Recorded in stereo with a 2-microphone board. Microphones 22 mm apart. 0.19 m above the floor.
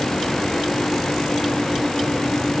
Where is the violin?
No violin in this recording.